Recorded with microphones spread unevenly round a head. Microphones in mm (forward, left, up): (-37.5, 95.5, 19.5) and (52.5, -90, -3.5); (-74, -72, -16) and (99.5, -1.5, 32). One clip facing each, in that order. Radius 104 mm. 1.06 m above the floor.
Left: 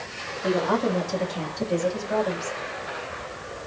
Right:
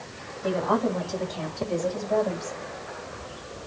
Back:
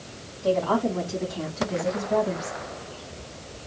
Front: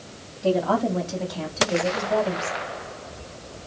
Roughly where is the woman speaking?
Ahead left.